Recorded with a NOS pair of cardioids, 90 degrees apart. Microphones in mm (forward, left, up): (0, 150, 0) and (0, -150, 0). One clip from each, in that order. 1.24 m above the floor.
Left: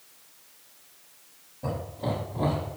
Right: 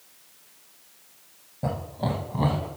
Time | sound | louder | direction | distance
1.6 | laughter | right 2 dB | 45° right | 0.8 m